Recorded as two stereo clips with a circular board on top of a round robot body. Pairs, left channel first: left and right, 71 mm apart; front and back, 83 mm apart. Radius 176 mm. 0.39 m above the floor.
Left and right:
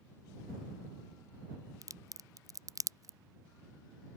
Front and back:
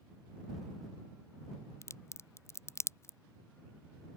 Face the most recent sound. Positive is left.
turn(degrees=-55)